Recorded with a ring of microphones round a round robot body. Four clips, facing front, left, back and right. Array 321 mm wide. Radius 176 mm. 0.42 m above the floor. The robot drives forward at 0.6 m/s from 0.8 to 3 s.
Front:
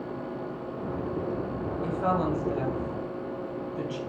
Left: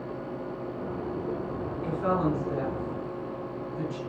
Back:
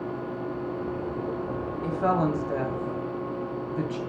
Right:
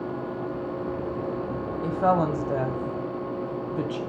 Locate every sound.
1.8 s a woman speaking: 95° right, 2.5 m; by 4.0 s 110° right, 3 m